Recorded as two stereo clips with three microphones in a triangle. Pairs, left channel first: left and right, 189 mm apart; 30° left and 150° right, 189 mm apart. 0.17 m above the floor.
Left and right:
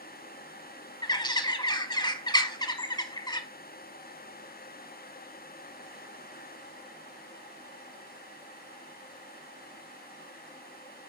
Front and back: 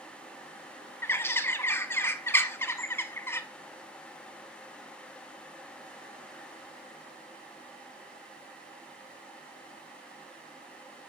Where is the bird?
85° left, 0.7 m.